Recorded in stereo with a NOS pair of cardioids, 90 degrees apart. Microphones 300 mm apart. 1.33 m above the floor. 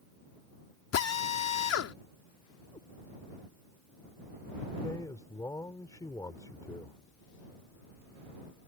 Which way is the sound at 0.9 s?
55° left.